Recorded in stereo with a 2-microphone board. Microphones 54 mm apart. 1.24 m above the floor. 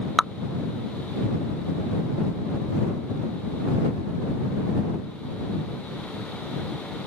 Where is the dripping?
Centre (ahead or behind).